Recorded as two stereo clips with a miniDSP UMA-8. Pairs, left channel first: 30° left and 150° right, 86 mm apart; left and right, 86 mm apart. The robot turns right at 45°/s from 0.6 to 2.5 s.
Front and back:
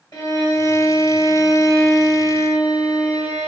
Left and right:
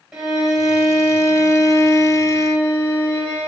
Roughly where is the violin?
Ahead.